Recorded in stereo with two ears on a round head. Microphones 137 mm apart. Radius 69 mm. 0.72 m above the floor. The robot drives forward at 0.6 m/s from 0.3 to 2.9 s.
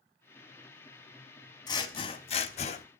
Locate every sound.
1.7 s scissors: 25° left (ahead or behind), 1.0 m; by 2.9 s 45° left (ahead or behind), 0.6 m